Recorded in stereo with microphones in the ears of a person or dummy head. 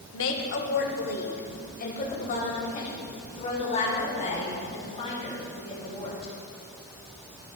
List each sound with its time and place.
0.1 s a woman speaking: 60° left (ahead or behind), 1.0 m; by 6.3 s 25° left (ahead or behind), 5 m